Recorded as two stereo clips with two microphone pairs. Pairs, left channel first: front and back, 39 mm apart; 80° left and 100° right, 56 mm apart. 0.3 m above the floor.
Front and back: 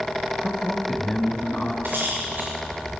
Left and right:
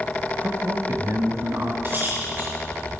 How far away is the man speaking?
About 1.3 m.